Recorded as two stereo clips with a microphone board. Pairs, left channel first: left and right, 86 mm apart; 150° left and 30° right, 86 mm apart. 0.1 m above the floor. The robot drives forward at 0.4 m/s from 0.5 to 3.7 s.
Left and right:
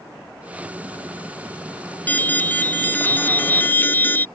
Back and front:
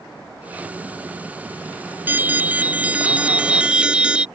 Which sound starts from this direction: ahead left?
An alarm, at 2.1 s.